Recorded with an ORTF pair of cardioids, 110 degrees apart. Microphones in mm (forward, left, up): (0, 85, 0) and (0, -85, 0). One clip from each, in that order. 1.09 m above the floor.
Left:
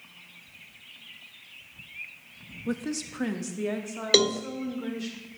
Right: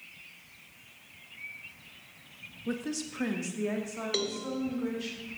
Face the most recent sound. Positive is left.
turn(degrees=60)